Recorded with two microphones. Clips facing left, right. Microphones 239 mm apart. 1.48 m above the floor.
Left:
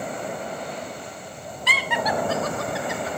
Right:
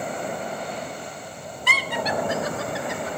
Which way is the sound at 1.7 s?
50° right (ahead or behind).